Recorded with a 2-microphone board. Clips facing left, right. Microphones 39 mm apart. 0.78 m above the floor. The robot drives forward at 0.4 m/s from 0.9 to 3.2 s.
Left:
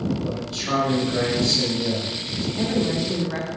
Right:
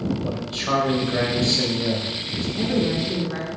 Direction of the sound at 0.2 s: 20° right (ahead or behind).